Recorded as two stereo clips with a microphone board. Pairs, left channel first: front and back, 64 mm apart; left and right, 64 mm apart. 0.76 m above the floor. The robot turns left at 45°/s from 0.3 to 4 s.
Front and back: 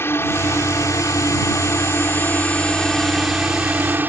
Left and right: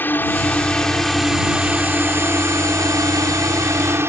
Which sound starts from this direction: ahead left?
A drone, at 0.0 s.